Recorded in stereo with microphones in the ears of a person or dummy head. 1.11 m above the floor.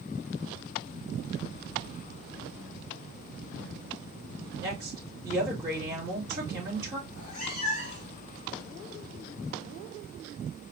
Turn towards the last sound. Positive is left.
turn(degrees=35)  # may be behind; listen again after turning